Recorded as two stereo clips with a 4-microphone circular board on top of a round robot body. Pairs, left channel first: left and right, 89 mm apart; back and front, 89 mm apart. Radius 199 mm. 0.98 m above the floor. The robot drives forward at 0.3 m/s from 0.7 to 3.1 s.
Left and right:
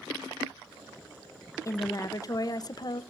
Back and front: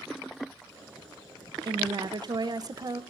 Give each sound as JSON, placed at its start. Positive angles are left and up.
{"t": 1.6, "sound": "a woman speaking", "azimuth_deg": 35, "distance_m": 1.3}